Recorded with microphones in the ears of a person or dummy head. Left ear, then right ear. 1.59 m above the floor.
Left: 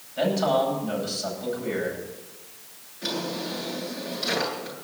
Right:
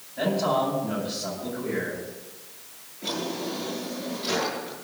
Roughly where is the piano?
No piano in this recording.